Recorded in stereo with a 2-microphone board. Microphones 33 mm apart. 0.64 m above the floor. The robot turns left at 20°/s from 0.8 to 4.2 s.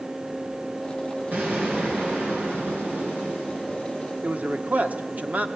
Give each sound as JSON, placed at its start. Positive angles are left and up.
{"t": 1.3, "sound": "an explosion", "azimuth_deg": -70, "distance_m": 7.0}
{"t": 4.2, "sound": "a man speaking", "side_deg": -55, "distance_m": 1.5}